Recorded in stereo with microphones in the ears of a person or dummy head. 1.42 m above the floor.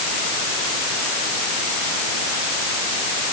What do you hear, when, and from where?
Only background noise.